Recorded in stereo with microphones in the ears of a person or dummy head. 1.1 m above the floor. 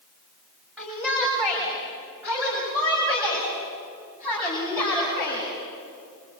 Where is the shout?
5° right (ahead or behind), 6.5 m; by 5.4 s 25° right (ahead or behind), 8.5 m.